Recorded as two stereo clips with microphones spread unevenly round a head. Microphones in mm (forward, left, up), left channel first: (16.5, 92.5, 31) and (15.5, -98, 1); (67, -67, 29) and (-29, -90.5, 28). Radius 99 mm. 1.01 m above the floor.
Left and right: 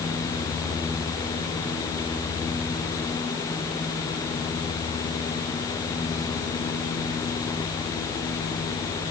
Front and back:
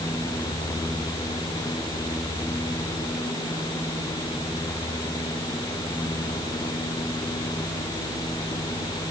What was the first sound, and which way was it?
Only background noise.